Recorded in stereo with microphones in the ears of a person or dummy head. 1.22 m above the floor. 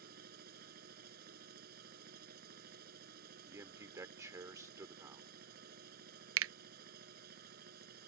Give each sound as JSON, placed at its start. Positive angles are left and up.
{"t": 0.0, "sound": "a machine running", "side_deg": -60}
{"t": 3.5, "sound": "a man speaking", "side_deg": -10}
{"t": 6.4, "sound": "a finger snap", "side_deg": -70}